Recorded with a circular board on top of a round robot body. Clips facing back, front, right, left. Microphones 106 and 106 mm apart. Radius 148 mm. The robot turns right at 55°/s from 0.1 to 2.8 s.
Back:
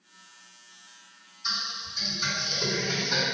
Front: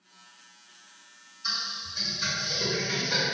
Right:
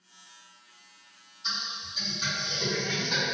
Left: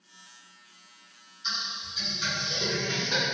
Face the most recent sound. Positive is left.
turn(degrees=30)